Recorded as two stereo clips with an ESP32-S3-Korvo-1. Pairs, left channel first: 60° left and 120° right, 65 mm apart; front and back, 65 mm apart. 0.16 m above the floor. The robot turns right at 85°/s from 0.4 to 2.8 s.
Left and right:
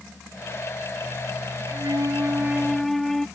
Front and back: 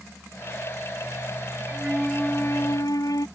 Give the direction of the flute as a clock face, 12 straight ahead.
4 o'clock.